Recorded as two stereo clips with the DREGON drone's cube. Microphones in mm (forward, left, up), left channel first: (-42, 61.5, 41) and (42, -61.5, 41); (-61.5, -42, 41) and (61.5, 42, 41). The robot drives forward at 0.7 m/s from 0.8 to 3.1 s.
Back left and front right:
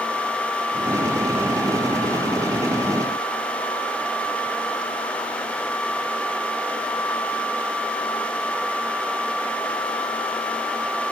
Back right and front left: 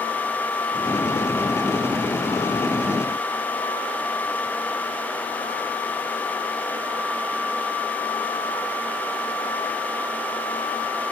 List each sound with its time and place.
Only background noise.